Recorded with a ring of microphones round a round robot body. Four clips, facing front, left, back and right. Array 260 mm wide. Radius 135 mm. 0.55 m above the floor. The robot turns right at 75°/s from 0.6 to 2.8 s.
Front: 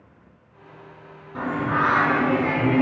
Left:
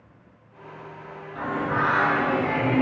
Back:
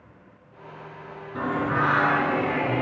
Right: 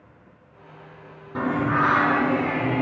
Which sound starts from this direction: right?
Singing, at 1.4 s.